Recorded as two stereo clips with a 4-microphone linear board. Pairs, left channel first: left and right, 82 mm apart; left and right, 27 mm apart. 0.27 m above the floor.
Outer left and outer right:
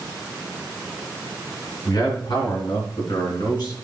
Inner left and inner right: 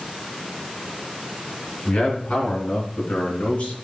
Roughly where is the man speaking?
Left.